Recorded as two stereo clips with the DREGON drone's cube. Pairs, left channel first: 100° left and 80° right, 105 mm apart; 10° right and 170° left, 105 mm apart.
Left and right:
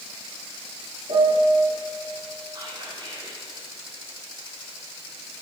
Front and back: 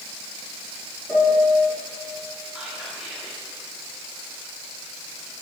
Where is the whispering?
110° right, 1.9 m.